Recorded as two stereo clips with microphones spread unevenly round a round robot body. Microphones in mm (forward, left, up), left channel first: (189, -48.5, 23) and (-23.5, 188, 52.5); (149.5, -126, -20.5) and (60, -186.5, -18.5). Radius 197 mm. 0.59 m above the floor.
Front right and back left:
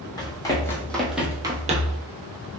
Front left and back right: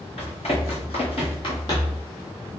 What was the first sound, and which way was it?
Running footsteps, 30° left.